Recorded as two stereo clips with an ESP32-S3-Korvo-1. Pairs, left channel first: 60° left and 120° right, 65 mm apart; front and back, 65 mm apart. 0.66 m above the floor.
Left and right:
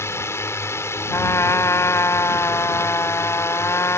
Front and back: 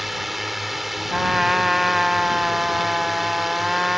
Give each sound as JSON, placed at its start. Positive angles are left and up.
{"t": 0.0, "sound": "a drone", "azimuth_deg": 95}
{"t": 1.1, "sound": "a trumpet", "azimuth_deg": 95}